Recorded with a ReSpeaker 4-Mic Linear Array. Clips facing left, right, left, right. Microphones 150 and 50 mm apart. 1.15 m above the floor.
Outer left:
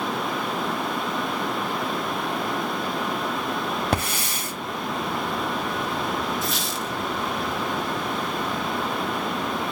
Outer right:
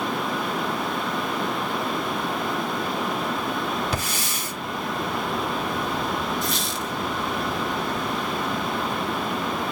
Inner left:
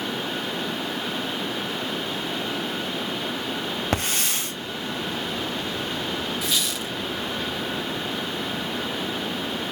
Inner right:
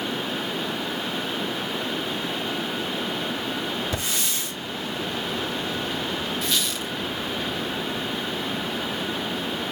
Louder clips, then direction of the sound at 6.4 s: Even, even; centre (ahead or behind).